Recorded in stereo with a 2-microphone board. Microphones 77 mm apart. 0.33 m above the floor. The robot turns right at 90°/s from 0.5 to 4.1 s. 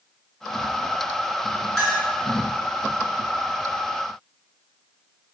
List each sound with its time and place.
1.8 s a clink: 10° left (ahead or behind), 1.6 m; by 2.1 s 15° right (ahead or behind), 1.6 m